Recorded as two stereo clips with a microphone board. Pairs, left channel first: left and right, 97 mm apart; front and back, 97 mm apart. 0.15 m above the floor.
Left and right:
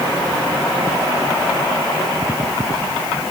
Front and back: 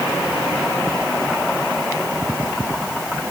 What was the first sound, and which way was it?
Only background noise.